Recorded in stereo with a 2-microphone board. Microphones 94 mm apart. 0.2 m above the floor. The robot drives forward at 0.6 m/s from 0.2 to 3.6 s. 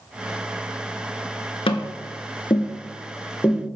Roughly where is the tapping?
Left.